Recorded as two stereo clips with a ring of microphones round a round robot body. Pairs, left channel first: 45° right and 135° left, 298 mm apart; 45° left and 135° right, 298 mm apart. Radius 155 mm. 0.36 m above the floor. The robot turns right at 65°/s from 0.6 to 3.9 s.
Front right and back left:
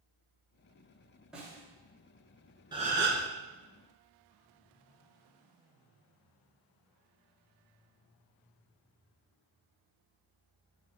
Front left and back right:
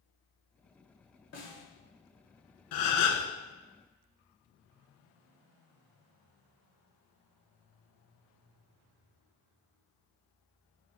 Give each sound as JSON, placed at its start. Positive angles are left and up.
{"t": 1.3, "sound": "a snare drum", "azimuth_deg": 50, "distance_m": 1.8}
{"t": 2.7, "sound": "a gasp", "azimuth_deg": 60, "distance_m": 1.0}